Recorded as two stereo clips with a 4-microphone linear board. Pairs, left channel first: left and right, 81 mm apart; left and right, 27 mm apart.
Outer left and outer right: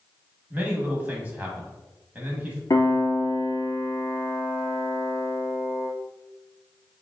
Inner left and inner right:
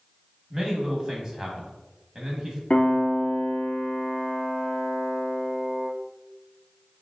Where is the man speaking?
20° right (ahead or behind), 1.0 m.